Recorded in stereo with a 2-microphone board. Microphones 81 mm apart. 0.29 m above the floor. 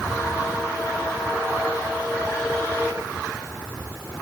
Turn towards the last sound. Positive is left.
No sound to turn to.